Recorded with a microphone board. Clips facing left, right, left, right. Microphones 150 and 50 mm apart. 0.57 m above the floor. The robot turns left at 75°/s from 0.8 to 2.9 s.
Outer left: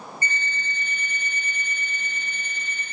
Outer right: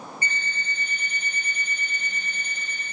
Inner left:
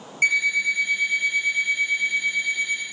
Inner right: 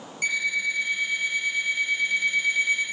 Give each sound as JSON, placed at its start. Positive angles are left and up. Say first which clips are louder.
{"t": 0.2, "sound": "an alarm clock", "louder": "outer left 4 dB, inner left 5 dB", "azimuth_deg": 135, "distance_m": 1.8}